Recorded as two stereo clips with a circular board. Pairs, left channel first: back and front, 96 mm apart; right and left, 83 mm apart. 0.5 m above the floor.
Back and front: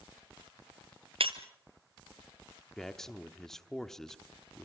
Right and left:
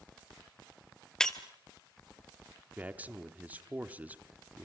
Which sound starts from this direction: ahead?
Breaking glass, at 1.2 s.